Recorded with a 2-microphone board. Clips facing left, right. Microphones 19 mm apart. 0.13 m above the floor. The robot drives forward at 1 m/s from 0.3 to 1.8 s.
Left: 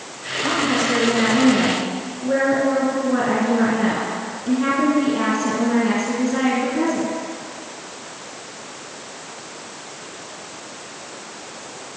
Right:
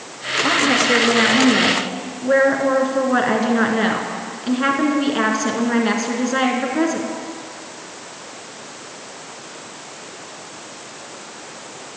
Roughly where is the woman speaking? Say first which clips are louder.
Right 3 dB; right.